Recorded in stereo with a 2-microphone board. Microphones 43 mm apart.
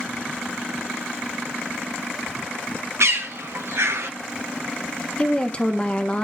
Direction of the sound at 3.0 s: 80° right.